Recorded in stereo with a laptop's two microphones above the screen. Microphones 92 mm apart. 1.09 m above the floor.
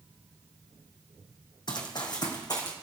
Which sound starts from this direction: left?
Running footsteps, at 1.7 s.